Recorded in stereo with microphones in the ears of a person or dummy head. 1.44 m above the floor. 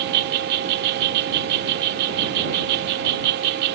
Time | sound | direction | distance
0.0 | an insect | 60° right (ahead or behind) | ?